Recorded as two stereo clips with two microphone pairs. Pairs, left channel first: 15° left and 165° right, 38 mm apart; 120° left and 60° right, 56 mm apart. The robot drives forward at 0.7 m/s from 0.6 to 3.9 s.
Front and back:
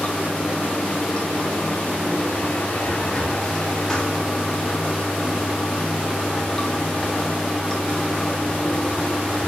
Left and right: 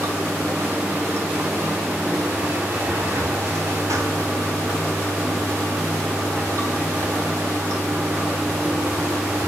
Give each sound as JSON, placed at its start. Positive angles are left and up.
{"t": 0.0, "sound": "running water", "azimuth_deg": -40, "distance_m": 5.0}